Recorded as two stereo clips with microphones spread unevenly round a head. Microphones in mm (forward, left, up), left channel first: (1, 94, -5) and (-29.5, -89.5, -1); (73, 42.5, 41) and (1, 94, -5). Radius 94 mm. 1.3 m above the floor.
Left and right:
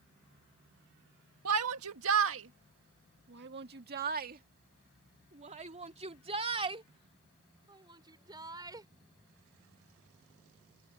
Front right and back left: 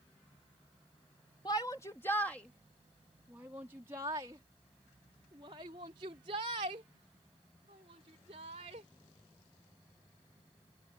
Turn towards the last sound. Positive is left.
turn(degrees=-170)